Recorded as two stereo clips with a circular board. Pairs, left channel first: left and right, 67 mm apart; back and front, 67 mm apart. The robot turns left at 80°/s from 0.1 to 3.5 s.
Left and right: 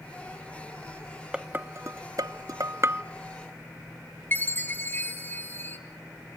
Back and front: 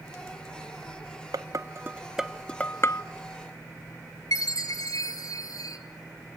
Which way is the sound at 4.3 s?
150° left.